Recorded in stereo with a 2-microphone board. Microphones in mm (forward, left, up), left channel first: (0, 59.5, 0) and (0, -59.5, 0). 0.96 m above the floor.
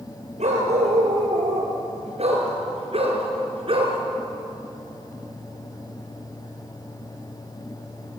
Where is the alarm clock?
No alarm clock in this recording.